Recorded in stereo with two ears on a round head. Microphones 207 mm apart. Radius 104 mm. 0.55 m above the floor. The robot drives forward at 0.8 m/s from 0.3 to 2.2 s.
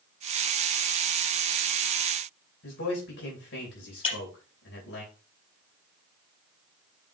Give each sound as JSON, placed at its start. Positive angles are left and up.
{"t": 2.6, "sound": "a man speaking", "side_deg": 55, "distance_m": 3.0}
{"t": 4.0, "sound": "breaking glass", "side_deg": 25, "distance_m": 4.0}